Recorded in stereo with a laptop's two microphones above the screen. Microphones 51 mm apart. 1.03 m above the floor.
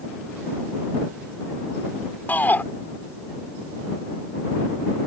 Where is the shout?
35° left (ahead or behind).